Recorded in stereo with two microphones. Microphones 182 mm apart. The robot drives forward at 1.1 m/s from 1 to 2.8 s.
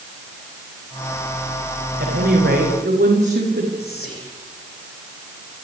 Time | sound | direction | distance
2.0 | a woman speaking | 70° right (ahead or behind) | 9.5 m
3.8 | whispering | 60° left (ahead or behind) | 9 m